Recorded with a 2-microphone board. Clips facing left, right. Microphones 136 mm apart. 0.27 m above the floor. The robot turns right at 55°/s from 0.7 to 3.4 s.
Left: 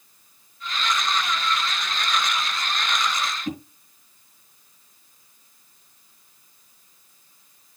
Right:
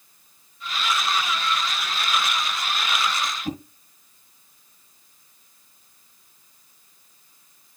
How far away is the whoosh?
About 1.4 m.